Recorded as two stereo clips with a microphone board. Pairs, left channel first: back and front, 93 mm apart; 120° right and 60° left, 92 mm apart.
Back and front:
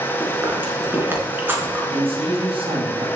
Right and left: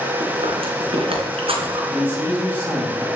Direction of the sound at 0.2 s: 70° left.